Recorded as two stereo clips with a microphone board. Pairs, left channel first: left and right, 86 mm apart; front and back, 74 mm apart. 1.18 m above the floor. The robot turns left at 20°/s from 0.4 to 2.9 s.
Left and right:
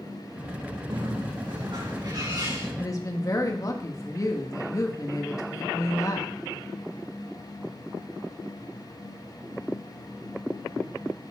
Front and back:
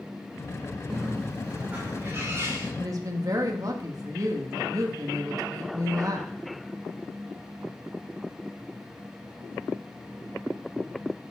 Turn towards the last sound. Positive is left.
turn(degrees=140)